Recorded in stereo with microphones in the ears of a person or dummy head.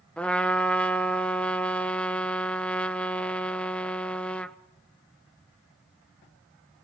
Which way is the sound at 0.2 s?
5° left (ahead or behind).